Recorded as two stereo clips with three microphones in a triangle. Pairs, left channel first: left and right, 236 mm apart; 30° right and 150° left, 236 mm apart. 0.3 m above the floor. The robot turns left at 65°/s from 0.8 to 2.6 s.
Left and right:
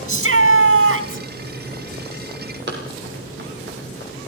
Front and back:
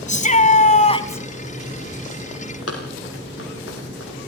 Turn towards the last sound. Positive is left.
turn(degrees=-50)